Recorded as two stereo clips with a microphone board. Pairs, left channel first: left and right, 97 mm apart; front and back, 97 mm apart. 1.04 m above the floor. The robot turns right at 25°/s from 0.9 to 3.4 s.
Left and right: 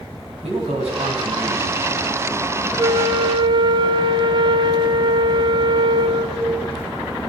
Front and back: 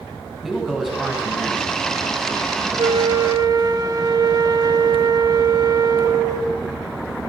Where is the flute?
145° right, 1.3 m; by 6.6 s 130° right, 1.3 m.